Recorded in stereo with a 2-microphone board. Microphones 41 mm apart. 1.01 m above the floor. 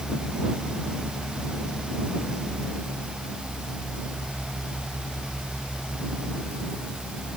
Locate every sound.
Only background noise.